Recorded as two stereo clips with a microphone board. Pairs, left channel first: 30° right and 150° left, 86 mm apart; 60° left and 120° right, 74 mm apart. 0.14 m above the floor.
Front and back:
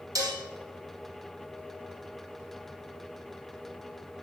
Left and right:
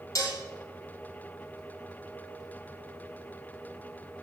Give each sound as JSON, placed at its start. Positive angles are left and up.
{"t": 0.1, "sound": "dishes clattering", "azimuth_deg": 105, "distance_m": 3.0}